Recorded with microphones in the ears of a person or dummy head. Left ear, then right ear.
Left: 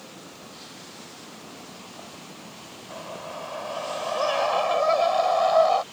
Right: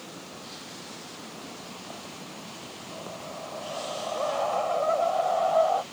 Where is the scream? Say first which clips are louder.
Left 4 dB; 75° left (ahead or behind); by 5.8 s 80° left.